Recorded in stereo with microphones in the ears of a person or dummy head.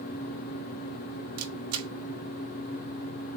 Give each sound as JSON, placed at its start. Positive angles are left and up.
{"t": 1.4, "sound": "a camera shutter", "side_deg": -85, "distance_m": 1.1}